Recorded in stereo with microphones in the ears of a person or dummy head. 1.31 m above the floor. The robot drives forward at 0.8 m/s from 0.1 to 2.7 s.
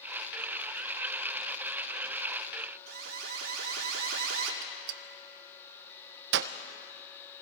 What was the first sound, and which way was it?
An alarm, 80° right.